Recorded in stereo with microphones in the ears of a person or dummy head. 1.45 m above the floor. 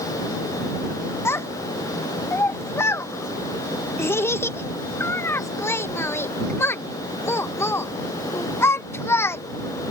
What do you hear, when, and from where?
1.2 s a child speaking: 20° left (ahead or behind)